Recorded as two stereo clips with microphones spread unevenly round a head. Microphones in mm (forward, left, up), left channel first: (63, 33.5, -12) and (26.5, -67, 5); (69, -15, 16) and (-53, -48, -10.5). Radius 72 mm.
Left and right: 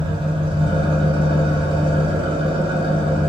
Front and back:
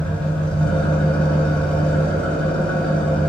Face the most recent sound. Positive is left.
turn(degrees=-70)